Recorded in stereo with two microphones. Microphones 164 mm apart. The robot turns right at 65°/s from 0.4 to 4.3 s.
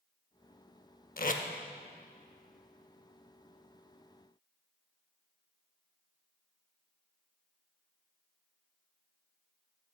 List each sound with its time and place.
1.2 s tape being pulled: 55° left (ahead or behind), 0.6 m; by 1.4 s 45° left (ahead or behind), 0.6 m